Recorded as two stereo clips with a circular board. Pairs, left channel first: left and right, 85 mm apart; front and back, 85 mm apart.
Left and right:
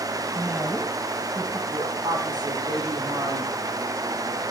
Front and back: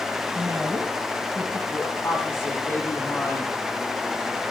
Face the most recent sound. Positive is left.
turn(degrees=-65)